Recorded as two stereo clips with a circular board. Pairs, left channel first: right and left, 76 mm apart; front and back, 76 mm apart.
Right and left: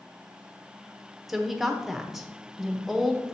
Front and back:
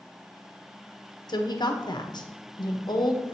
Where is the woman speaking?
5° left, 0.9 m.